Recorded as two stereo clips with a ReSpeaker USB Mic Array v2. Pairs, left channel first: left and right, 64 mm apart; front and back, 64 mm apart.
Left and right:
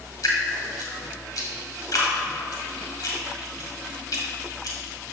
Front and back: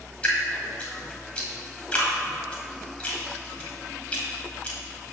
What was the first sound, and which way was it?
Dripping, 70° left.